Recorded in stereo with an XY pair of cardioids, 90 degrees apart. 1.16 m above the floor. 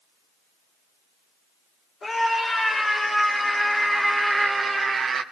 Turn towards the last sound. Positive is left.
turn(degrees=-65)